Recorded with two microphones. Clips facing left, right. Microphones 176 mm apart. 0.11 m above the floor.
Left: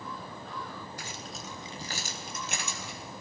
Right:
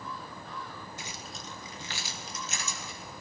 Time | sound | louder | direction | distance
1.0 | keys jangling | left 2 dB | 25° right (ahead or behind) | 1.2 m